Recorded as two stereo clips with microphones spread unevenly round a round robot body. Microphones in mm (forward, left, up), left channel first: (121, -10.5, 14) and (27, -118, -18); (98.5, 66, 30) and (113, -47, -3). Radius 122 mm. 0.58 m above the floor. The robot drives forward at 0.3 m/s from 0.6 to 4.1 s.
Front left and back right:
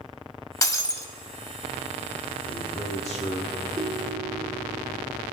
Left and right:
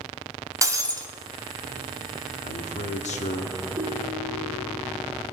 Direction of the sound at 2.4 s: 90° left.